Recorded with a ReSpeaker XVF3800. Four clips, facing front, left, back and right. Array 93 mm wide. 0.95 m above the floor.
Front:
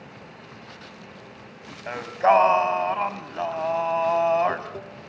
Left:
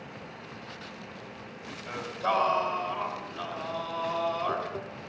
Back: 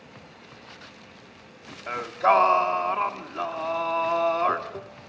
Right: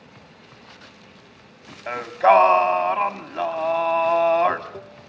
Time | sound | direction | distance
1.9 | singing | 65° right | 1.6 m